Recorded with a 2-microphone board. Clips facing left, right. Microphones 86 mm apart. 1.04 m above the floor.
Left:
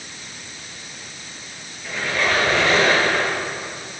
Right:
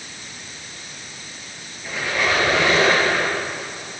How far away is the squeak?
About 7 m.